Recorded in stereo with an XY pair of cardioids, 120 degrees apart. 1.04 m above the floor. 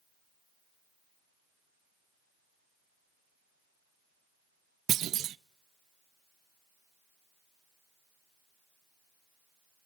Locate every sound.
4.9 s a clunk: 60° right, 0.6 m